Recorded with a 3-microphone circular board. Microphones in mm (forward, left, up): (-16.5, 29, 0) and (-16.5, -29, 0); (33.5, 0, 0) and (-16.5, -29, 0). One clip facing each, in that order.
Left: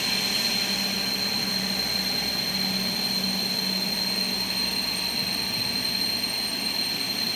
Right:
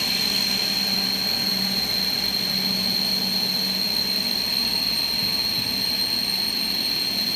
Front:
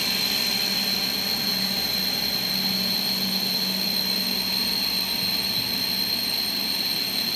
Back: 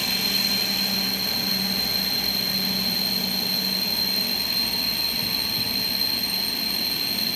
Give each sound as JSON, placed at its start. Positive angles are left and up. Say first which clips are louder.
{"t": 0.0, "sound": "an insect", "louder": "right 1 dB, back 1 dB", "azimuth_deg": -85, "distance_m": 3.5}